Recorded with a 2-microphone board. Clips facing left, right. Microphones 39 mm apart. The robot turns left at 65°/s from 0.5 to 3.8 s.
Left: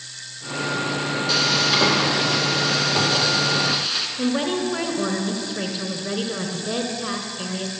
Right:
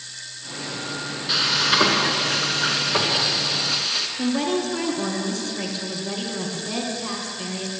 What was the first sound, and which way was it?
Frying, 25° right.